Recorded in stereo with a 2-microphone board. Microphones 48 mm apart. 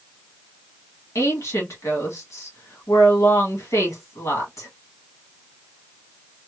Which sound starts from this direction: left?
A woman speaking, at 1.1 s.